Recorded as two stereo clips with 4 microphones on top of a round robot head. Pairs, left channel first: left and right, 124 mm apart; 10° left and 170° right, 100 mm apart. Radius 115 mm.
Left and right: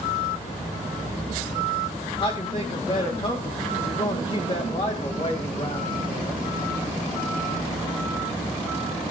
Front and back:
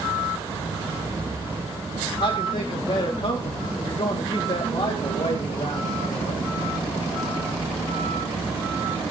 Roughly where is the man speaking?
Ahead left.